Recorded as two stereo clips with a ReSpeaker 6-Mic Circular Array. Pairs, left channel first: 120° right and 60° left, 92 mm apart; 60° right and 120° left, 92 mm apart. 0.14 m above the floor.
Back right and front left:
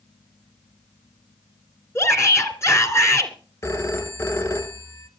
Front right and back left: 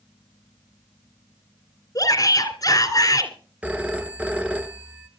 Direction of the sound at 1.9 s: 80° right.